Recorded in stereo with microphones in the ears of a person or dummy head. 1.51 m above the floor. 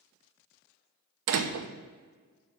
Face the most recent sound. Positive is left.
turn(degrees=-70)  # may be behind; listen again after turning